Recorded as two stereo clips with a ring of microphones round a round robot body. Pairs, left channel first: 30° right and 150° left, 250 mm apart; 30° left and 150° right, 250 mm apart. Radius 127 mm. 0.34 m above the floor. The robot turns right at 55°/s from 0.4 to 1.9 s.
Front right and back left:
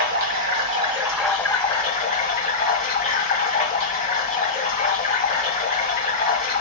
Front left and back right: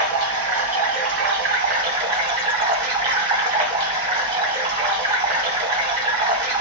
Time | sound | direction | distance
0.0 | running water | 170° right | 1.8 m